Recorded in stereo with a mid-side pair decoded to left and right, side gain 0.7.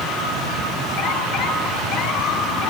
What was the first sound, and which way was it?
Only background noise.